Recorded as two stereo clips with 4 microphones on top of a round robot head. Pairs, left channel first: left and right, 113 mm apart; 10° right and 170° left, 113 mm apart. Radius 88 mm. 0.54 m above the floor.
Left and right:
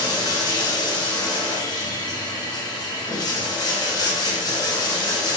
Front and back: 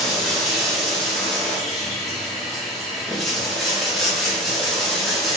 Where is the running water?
80° left, 1.1 m.